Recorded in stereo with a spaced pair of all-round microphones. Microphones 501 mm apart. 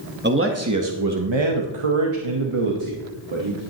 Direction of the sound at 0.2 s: 20° right (ahead or behind).